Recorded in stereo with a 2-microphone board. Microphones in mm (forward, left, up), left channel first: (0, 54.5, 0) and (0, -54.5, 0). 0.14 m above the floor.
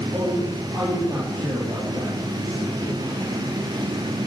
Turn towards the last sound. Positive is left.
turn(degrees=-30)  # may be behind; listen again after turning